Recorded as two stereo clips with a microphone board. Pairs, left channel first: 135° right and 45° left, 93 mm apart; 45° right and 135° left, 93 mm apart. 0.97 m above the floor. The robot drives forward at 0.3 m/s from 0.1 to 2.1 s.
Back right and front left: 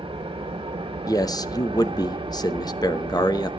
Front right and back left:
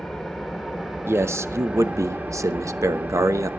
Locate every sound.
0.0 s an engine running: 45° left, 1.6 m; by 3.6 s 65° left, 1.2 m
1.1 s a man speaking: 170° right, 0.8 m; by 3.5 s 175° right, 1.0 m